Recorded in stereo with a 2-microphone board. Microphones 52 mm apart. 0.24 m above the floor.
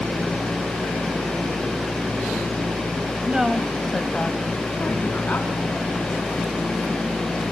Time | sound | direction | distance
3.3 | a woman speaking | 20° right (ahead or behind) | 1.0 m